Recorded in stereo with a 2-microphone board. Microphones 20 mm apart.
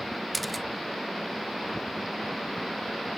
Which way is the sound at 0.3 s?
Centre (ahead or behind).